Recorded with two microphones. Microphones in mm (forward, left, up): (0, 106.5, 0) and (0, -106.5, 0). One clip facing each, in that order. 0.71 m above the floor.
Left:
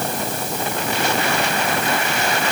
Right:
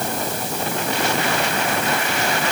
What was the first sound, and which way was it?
Only background noise.